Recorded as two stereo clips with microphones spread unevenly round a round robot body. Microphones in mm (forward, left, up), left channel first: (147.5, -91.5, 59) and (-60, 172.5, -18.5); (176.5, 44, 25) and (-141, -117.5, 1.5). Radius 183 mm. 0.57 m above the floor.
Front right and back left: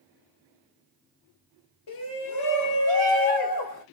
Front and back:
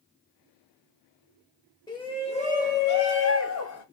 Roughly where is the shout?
Ahead right.